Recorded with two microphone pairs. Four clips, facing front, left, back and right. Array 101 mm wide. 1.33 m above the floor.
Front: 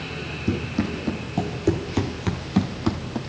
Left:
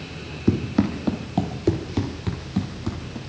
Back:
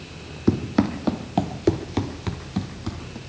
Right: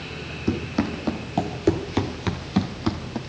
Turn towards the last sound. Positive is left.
turn(degrees=-35)